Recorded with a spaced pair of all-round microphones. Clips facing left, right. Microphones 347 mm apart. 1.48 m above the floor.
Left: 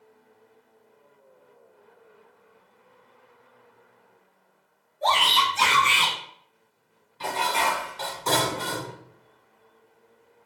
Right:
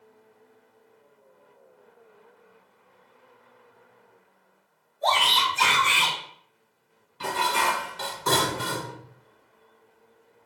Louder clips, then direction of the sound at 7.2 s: Even; 20° right (ahead or behind).